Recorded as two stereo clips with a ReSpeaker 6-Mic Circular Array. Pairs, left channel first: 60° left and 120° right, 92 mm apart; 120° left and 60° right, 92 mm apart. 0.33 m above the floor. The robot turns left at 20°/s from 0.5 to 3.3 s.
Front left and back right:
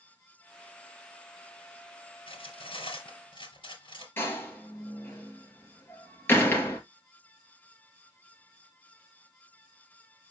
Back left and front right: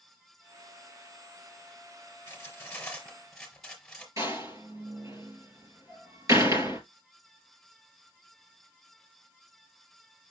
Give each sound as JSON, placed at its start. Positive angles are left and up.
{"t": 2.3, "sound": "cutlery clinking", "azimuth_deg": 55, "distance_m": 4.0}
{"t": 4.2, "sound": "a door slam", "azimuth_deg": -10, "distance_m": 4.0}